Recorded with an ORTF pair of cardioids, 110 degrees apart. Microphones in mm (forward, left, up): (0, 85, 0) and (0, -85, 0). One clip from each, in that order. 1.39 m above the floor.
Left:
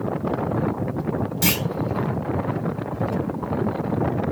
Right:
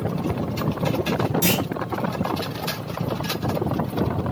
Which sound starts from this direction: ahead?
A clunk, at 1.4 s.